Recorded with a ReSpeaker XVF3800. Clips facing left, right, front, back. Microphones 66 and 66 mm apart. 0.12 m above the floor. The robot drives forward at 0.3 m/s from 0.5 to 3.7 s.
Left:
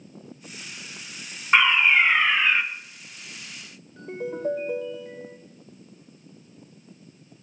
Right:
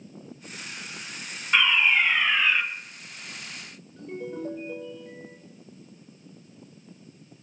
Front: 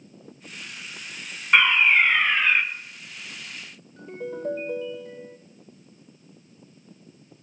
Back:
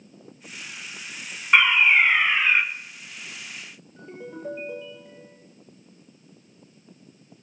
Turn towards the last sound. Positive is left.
turn(degrees=100)